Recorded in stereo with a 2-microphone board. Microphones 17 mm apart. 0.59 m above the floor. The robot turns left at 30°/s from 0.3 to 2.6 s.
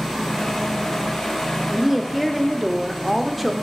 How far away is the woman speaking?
About 0.6 m.